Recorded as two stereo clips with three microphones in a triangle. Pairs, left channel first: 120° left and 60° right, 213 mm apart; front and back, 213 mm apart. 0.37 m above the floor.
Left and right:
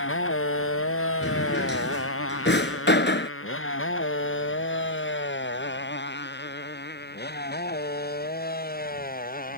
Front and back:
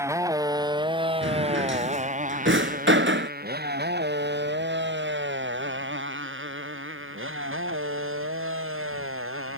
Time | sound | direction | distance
0.0 | a motorcycle | 105° left | ?
1.2 | a drawer | 155° left | ?